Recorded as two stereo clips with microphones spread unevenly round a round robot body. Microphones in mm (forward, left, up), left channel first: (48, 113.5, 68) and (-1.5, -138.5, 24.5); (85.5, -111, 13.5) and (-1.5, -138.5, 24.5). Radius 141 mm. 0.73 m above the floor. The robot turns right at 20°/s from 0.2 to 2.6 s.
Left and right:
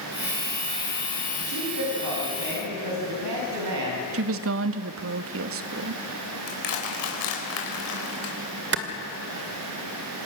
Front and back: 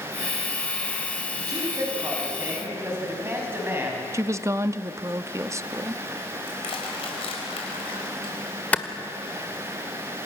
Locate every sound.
1.4 s a man speaking: 125° right, 5.5 m; by 4.0 s 100° right, 5.5 m
4.1 s a woman speaking: 100° right, 1.0 m
6.5 s crushing: 45° left, 4.5 m
8.7 s a clap: 55° right, 1.9 m